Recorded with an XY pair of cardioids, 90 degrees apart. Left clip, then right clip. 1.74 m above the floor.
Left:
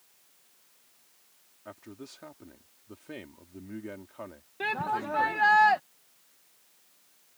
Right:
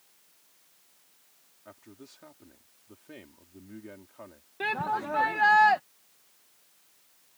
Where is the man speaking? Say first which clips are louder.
Left 5 dB; 40° left.